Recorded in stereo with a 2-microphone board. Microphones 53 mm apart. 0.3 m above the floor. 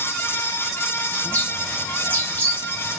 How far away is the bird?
About 1.1 m.